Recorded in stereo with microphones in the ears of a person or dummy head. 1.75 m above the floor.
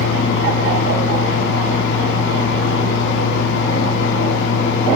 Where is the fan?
70° left (ahead or behind), 5 m.